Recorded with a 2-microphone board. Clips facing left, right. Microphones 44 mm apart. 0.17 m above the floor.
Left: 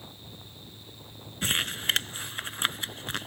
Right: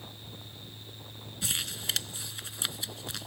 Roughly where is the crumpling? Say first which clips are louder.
Left 7 dB; left.